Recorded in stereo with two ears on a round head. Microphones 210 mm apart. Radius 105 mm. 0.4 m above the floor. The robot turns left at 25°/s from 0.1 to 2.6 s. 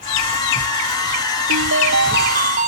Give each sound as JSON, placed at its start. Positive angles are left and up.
{"t": 1.5, "sound": "a ringtone", "side_deg": -60}